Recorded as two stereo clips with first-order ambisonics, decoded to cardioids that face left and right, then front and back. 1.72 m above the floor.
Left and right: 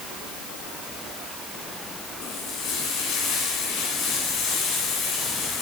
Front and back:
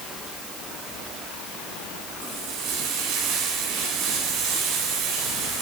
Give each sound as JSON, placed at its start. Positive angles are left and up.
{"t": 2.2, "sound": "frying", "azimuth_deg": 140, "distance_m": 8.5}